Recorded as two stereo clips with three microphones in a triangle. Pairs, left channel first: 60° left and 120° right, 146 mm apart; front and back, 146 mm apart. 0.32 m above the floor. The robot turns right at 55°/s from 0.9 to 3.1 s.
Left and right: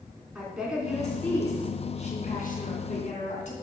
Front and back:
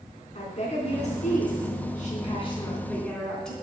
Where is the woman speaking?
35° right, 3.5 m; by 3.5 s 85° left, 3.5 m.